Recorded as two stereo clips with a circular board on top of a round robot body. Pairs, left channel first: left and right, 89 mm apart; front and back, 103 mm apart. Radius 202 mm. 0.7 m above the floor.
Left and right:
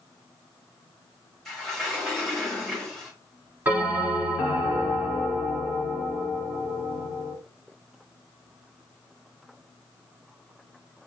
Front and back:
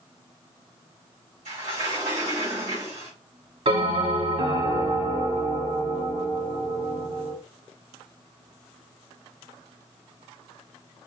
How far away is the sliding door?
About 2 m.